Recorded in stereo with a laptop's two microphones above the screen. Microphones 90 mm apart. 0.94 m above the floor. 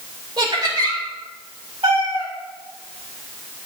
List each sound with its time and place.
0.4 s laughter: 55° right (ahead or behind), 2.5 m
1.8 s a cat meowing: 70° right (ahead or behind), 1.3 m